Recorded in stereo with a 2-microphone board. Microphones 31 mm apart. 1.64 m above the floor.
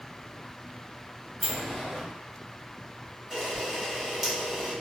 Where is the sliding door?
30° left (ahead or behind), 1.6 m.